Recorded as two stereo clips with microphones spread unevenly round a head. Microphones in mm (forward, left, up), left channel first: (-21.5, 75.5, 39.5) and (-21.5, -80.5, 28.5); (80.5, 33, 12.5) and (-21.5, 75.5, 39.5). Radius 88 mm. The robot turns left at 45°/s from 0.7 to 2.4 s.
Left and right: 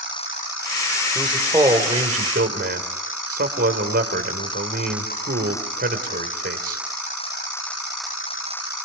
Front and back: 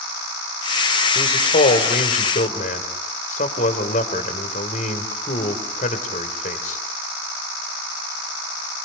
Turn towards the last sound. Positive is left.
turn(degrees=-50)